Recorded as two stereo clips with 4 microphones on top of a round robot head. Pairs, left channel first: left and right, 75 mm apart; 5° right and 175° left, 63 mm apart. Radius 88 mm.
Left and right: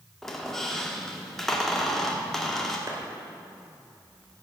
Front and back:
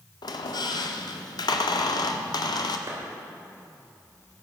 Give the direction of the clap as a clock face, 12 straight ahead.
5 o'clock.